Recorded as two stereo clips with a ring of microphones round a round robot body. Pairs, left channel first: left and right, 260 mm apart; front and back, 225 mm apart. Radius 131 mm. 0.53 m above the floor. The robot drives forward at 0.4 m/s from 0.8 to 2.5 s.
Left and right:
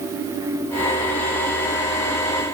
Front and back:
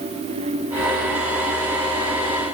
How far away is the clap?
No clap in this recording.